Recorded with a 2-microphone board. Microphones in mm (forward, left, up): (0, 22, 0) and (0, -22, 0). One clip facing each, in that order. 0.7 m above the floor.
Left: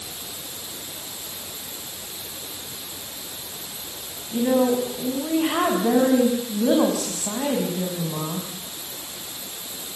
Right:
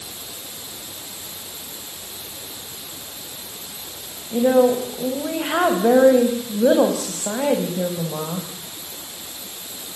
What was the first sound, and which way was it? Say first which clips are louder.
A woman speaking: right 4 dB; 65° right (ahead or behind).